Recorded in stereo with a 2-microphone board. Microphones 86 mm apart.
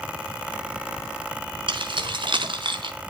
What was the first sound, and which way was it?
Keys jangling, 75° right (ahead or behind).